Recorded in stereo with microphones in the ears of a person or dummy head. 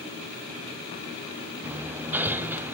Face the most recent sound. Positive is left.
turn(degrees=-10)  # may be behind; listen again after turning